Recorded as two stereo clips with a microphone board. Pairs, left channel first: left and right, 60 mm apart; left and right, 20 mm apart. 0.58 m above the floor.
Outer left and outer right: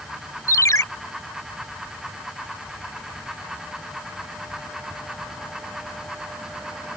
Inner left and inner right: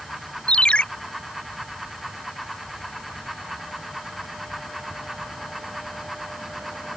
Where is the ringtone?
70° left (ahead or behind).